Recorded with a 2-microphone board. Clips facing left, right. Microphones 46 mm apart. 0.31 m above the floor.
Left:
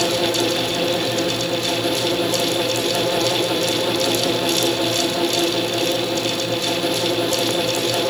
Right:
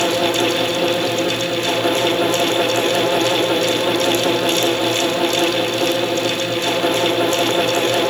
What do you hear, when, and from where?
Only background noise.